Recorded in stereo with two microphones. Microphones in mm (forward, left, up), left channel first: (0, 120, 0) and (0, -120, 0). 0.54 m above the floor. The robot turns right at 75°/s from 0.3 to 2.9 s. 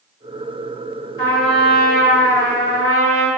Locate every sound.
1.2 s a trumpet: 165° left, 1.6 m; by 3.3 s 65° right, 1.6 m